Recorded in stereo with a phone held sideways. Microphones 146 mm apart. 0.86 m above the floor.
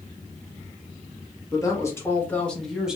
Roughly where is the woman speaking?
Left.